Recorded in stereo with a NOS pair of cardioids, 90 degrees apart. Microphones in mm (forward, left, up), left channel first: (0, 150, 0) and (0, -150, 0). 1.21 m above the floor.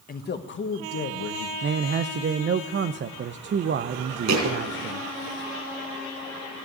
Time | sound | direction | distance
0.1 | a man speaking | 30° left | 1.6 m
1.6 | a man speaking | 40° right | 0.6 m
4.3 | a thud | 65° right | 5 m